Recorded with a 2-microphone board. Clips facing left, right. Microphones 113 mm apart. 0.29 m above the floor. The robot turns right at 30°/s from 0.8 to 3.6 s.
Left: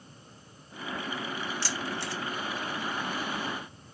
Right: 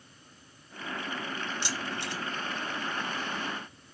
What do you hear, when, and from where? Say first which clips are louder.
1.6 s keys jangling: left 1 dB; 20° right (ahead or behind), 0.7 m